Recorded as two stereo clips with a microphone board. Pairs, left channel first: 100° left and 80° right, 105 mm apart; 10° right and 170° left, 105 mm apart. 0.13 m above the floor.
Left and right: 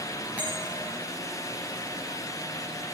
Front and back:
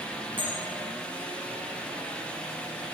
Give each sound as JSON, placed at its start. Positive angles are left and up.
{"t": 0.4, "sound": "a bell", "azimuth_deg": -150, "distance_m": 7.0}